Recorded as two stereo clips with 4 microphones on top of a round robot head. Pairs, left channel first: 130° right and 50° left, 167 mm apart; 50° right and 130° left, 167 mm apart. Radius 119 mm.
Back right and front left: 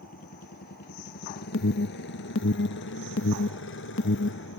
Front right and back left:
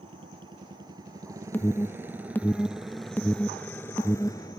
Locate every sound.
0.0 s a motorcycle: 170° right; by 4.6 s 115° right
1.5 s an alarm: 130° right